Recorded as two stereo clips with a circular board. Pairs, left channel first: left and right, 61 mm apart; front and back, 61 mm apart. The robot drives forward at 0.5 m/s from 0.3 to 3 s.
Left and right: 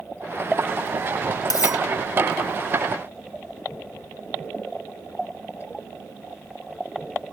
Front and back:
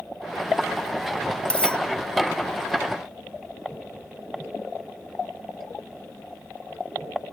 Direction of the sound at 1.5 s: 70° left.